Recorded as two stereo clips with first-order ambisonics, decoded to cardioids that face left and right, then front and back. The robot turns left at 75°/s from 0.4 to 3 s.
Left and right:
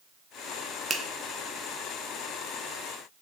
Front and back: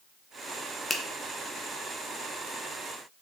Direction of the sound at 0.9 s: 50° right.